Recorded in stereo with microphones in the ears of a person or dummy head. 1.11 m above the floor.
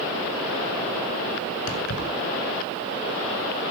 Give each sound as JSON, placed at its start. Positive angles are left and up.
{"t": 1.7, "sound": "keys jangling", "side_deg": 70, "distance_m": 8.0}